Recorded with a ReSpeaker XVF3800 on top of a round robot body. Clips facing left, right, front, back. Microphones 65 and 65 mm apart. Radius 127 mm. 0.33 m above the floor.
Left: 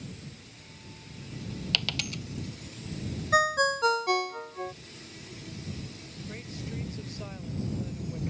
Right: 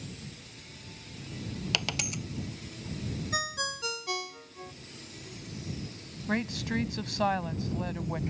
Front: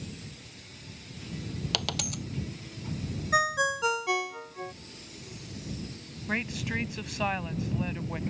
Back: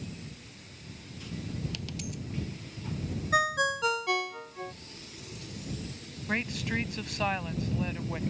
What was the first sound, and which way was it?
A dropped coin, 20° right.